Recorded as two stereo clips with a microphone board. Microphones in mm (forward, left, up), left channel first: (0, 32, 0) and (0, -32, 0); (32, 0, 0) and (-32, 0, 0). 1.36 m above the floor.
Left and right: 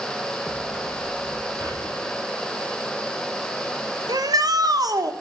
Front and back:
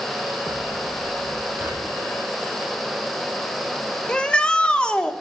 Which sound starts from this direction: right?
A shout, at 4.1 s.